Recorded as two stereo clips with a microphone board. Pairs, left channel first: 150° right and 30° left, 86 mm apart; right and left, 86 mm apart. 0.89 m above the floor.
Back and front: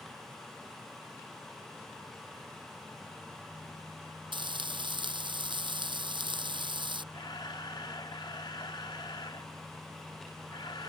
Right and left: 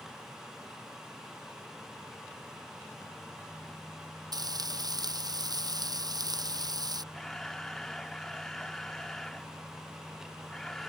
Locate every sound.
4.3 s frying: 50° left
7.1 s a camera shutter: 175° right